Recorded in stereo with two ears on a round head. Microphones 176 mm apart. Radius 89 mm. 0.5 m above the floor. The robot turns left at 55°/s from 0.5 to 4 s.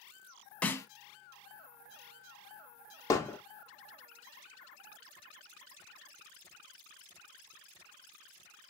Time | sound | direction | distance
0.6 | a snare drum | 5° left (ahead or behind) | 0.5 m
3.1 | hammering | 15° left (ahead or behind) | 0.7 m